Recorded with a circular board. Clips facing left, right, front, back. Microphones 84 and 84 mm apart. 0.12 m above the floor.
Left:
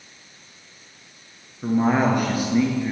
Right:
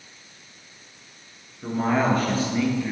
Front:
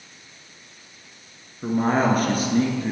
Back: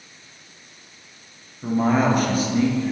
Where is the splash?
I don't hear a splash.